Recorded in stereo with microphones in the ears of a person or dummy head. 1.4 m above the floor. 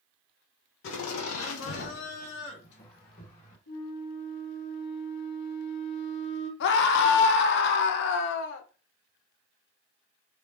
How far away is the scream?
About 0.6 m.